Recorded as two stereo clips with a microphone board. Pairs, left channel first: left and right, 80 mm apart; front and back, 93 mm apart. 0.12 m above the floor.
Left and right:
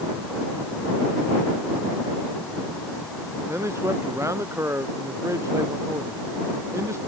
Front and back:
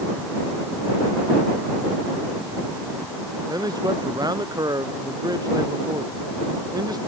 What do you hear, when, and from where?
3.5 s a man speaking: 140° right